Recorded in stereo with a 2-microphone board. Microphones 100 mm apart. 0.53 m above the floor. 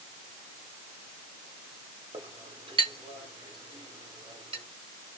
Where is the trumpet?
I don't hear a trumpet.